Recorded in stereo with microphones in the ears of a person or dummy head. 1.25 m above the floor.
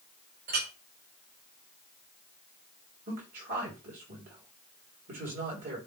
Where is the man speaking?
45° right (ahead or behind), 4 m.